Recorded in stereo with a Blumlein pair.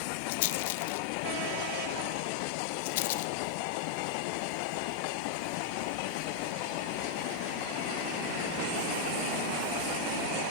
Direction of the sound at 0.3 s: 50° left.